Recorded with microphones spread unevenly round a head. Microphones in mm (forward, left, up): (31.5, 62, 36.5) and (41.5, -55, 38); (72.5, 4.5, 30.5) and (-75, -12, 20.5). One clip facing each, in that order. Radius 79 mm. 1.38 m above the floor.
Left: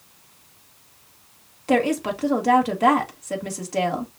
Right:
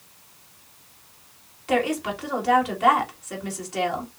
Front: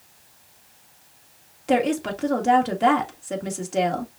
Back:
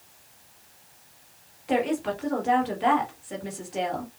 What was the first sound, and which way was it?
A woman speaking, 45° left.